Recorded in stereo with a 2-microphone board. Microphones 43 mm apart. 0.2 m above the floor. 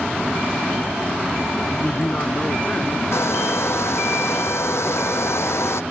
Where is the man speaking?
40° left (ahead or behind); by 3.0 s 35° left (ahead or behind).